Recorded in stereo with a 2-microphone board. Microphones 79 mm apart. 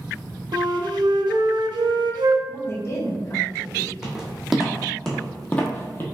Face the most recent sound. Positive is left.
turn(degrees=30)  # may be behind; listen again after turning